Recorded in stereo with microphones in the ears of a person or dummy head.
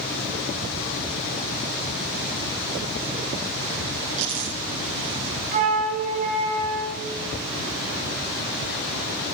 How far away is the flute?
About 5.5 m.